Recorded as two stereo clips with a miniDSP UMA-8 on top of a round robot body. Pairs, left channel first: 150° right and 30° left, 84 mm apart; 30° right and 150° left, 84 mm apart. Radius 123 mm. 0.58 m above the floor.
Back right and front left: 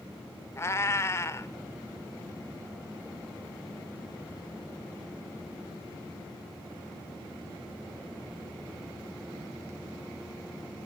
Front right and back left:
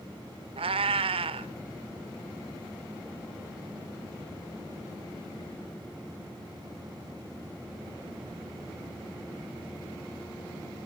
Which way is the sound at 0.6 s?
150° left.